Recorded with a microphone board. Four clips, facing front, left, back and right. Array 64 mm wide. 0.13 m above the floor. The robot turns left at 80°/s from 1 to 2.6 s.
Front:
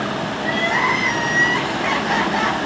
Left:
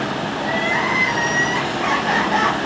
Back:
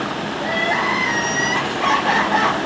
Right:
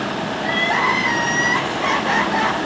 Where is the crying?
90° right, 4.5 m; by 2.6 s 145° left, 4.5 m.